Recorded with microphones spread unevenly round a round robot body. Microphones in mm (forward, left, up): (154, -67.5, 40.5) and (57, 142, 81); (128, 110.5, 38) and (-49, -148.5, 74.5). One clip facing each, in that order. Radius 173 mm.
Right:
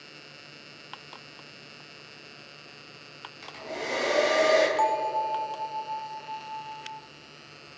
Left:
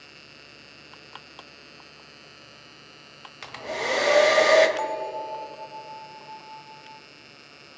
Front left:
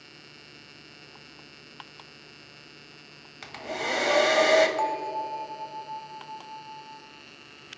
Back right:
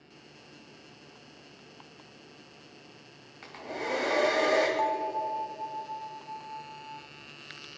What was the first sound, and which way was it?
A hair dryer, 100° left.